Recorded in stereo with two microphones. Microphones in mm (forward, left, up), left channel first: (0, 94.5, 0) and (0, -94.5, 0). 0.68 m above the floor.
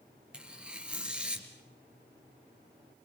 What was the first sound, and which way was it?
Tearing paper, 5° right (ahead or behind).